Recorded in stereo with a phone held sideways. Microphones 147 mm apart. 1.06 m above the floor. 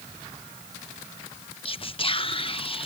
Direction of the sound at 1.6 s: 40° left (ahead or behind).